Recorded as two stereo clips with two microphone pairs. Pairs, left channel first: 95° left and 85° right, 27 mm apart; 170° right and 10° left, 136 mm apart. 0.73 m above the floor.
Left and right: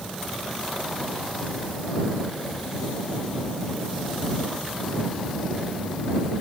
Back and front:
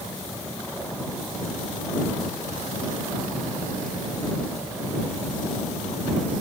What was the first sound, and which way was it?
Only background noise.